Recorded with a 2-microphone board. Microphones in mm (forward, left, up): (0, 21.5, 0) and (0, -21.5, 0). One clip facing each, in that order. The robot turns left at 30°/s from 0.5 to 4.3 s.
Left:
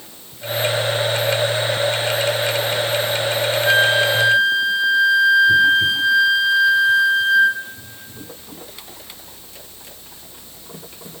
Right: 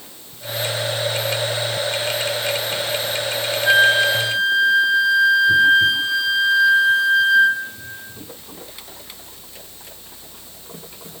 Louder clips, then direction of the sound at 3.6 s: Right 2 dB; 10° right (ahead or behind).